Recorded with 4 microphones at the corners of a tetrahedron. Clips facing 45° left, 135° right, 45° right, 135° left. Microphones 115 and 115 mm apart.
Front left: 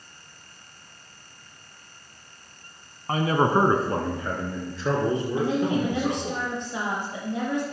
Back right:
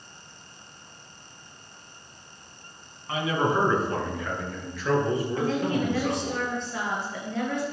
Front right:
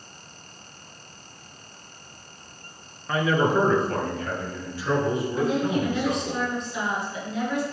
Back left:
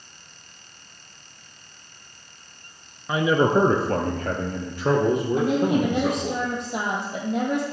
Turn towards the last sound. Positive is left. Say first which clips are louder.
# front left 2 dB, back left 1 dB
turn(degrees=115)